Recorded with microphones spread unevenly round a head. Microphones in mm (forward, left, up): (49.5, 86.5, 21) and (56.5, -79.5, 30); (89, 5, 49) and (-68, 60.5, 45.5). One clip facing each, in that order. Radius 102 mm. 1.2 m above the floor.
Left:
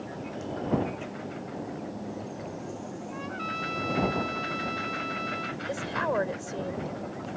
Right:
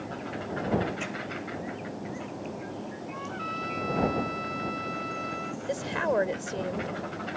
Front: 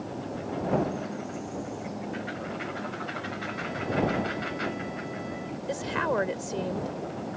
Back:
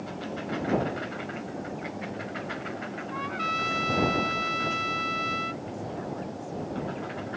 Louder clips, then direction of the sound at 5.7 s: Right 2 dB, front 6 dB; 20° right.